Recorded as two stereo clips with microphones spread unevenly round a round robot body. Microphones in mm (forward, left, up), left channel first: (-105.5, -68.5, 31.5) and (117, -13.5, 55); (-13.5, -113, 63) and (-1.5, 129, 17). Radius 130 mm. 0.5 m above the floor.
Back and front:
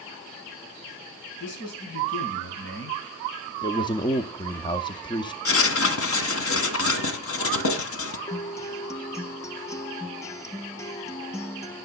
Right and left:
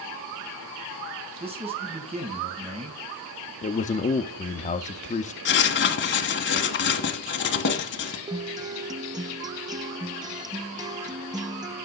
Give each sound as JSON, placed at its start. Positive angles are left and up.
{"t": 1.4, "sound": "a man speaking", "azimuth_deg": 150, "distance_m": 4.5}
{"t": 3.6, "sound": "a man speaking", "azimuth_deg": -140, "distance_m": 0.8}
{"t": 5.5, "sound": "writing", "azimuth_deg": -140, "distance_m": 1.8}
{"t": 8.3, "sound": "a guitar", "azimuth_deg": 135, "distance_m": 0.8}